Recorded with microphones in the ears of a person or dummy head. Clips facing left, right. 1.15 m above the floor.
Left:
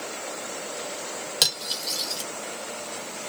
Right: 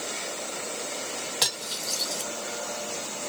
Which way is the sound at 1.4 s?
35° left (ahead or behind).